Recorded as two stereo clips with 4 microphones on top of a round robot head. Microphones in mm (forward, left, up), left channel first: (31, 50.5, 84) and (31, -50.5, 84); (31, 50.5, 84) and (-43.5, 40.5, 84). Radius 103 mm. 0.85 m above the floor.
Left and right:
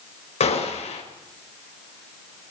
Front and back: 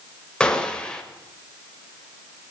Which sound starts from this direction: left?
A gunshot, at 0.4 s.